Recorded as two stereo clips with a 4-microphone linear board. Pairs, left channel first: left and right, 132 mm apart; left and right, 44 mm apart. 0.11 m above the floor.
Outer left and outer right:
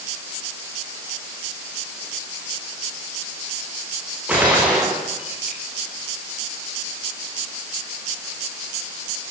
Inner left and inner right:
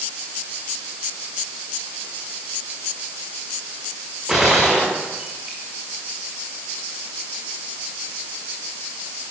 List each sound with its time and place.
4.3 s a gunshot: 10° right (ahead or behind), 7 m